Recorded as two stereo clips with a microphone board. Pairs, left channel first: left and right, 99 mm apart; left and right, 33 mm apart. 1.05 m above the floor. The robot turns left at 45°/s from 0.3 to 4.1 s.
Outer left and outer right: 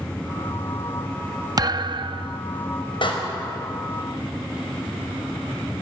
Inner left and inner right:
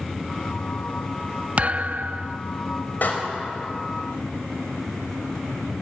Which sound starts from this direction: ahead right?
A thud, at 1.6 s.